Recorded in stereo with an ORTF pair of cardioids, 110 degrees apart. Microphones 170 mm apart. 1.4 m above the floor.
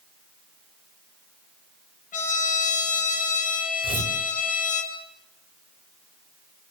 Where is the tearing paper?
30° right, 4.5 m.